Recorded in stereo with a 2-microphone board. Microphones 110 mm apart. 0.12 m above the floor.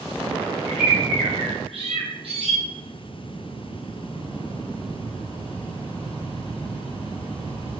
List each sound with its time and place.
0.7 s a bird: 65° right (ahead or behind), 0.7 m